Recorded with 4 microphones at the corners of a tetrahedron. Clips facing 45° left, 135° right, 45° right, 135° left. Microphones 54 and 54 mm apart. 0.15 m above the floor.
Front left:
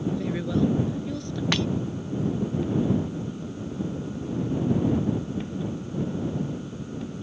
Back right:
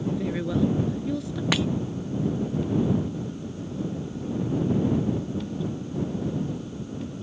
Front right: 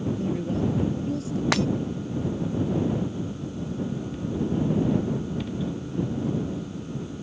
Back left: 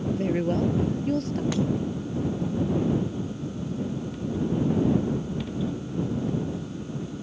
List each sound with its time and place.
0.1 s a woman speaking: 140° left
1.5 s breaking glass: 50° right